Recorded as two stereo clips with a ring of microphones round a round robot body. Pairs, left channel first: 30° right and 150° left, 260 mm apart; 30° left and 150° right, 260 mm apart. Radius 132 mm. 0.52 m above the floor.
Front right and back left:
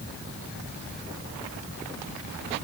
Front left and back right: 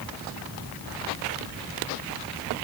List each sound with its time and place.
Only background noise.